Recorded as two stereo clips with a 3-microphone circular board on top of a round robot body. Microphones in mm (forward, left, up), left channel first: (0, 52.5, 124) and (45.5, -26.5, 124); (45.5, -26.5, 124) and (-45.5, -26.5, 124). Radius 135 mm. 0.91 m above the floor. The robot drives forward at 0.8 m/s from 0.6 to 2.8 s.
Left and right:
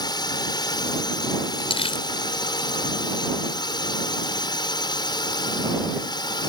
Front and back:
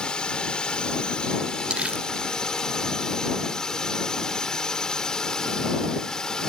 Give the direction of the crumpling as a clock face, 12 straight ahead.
9 o'clock.